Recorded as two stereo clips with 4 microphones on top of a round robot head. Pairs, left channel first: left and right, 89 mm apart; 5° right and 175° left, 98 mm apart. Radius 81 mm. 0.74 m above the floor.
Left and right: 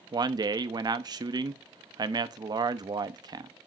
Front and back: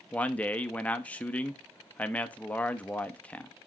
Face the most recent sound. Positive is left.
turn(degrees=-80)